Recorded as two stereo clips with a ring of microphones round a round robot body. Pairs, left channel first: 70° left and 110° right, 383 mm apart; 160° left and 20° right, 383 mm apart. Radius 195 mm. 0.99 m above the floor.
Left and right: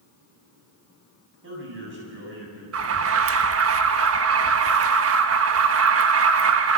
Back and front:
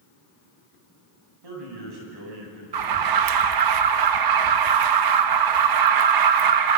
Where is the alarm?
55° right, 1.2 m.